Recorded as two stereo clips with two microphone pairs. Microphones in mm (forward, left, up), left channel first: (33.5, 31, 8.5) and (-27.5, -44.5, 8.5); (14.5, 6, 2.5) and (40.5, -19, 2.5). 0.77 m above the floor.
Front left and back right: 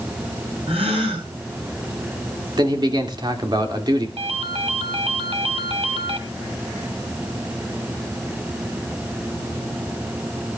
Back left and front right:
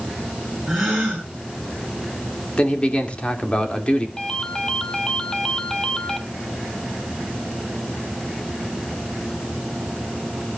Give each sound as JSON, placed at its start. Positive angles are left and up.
{"t": 0.7, "sound": "a gasp", "azimuth_deg": -125, "distance_m": 10.0}
{"t": 2.6, "sound": "a man speaking", "azimuth_deg": -165, "distance_m": 2.5}
{"t": 4.2, "sound": "a ringtone", "azimuth_deg": -150, "distance_m": 1.4}